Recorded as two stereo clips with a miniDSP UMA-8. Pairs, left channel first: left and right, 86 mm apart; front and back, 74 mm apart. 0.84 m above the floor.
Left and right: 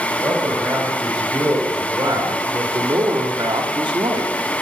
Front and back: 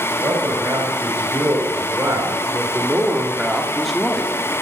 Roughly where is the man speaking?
Behind right.